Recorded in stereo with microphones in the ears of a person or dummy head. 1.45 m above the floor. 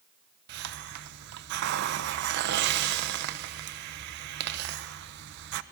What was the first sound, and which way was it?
A hiss, 70° right (ahead or behind).